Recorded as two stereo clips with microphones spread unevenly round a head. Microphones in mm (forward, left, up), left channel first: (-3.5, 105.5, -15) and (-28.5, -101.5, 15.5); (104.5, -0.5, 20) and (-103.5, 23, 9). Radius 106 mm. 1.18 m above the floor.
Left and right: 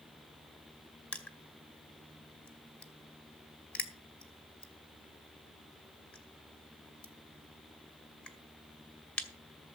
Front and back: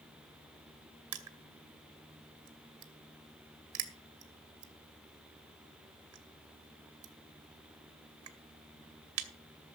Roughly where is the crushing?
Behind.